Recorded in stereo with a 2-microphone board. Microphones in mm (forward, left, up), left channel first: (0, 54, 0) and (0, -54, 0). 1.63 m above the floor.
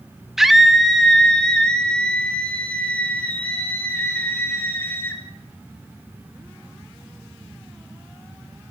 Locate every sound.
0.4 s a scream: 5° right (ahead or behind), 2.0 m; by 5.2 s 15° left (ahead or behind), 6.5 m